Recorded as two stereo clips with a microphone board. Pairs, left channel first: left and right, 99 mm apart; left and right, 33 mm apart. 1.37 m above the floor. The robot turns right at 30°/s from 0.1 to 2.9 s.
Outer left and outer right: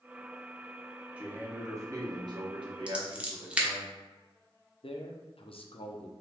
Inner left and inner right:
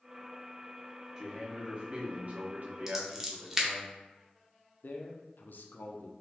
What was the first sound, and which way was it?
A man speaking, 165° right.